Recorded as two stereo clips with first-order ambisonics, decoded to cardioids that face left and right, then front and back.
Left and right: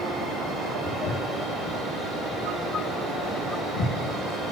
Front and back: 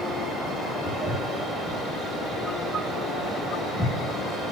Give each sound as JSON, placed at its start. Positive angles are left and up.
{"t": 0.8, "sound": "footsteps", "azimuth_deg": 115, "distance_m": 5.0}